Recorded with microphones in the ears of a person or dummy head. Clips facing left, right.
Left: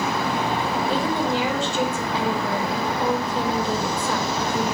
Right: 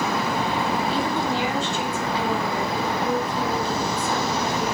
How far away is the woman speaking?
About 6.5 m.